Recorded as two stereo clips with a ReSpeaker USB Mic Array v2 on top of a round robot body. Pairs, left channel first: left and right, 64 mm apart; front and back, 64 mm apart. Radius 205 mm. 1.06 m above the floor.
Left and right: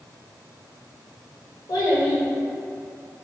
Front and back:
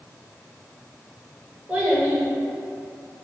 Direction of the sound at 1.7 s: 105° left.